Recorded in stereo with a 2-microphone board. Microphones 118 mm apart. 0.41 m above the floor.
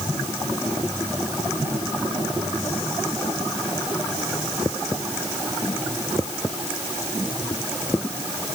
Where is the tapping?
I don't hear tapping.